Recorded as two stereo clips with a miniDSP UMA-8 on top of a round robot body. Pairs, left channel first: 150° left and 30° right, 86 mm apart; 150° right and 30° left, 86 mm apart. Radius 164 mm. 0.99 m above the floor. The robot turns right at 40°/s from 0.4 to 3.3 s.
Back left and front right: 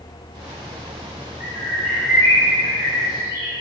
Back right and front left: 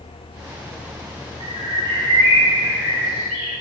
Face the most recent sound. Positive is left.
turn(degrees=115)